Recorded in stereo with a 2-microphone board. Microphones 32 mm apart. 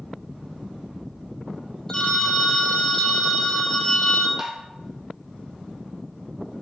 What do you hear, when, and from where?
1.9 s a phone ringing: 10° left (ahead or behind), 1.2 m
4.4 s tapping: 10° right (ahead or behind), 1.3 m